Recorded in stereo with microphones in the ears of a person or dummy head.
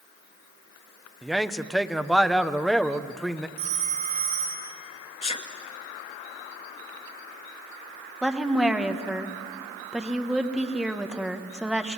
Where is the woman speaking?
Centre (ahead or behind), 1.5 m.